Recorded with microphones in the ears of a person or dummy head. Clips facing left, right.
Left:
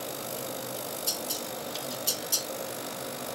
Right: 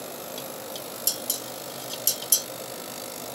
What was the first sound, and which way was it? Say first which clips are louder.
Dishes clattering: even; 25° right (ahead or behind).